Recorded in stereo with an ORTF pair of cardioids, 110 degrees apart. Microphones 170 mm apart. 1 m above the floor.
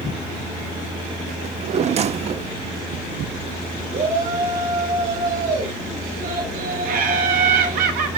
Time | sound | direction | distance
1.4 | a drawer | 40° right | 0.6 m
3.9 | a shout | 50° right | 5 m
6.8 | laughter | 60° right | 2.5 m